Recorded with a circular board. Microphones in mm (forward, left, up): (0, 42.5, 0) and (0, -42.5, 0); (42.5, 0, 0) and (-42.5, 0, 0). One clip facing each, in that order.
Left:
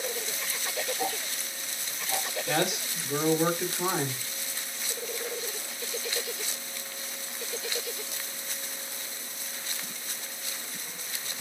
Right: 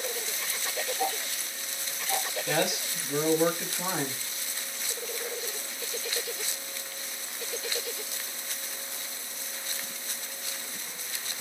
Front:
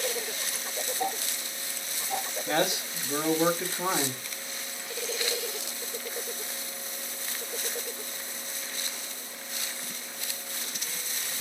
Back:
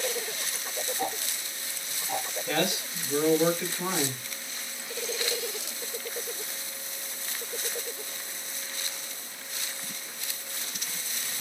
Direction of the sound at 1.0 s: Straight behind.